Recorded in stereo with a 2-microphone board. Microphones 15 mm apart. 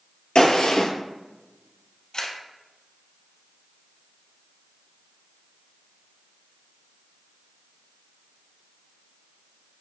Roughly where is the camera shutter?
Left.